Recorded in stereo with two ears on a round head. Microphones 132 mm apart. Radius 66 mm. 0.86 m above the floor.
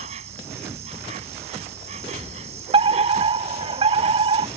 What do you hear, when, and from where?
0.0 s an insect: 45° right (ahead or behind)
2.7 s a fire alarm: 40° right (ahead or behind)